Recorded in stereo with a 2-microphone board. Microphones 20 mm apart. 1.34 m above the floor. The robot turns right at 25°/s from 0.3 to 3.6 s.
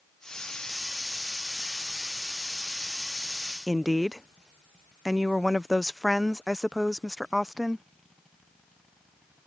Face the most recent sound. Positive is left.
turn(degrees=-10)  # may be behind; listen again after turning